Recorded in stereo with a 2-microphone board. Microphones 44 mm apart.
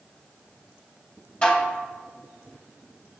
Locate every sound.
1.4 s dishes clattering: 25° left (ahead or behind), 1.4 m